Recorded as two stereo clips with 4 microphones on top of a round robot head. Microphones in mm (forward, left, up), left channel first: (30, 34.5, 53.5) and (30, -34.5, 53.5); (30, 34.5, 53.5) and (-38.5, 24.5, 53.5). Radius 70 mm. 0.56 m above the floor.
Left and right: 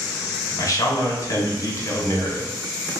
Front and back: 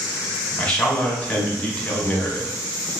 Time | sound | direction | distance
0.6 | a man speaking | 80° left | 1.1 m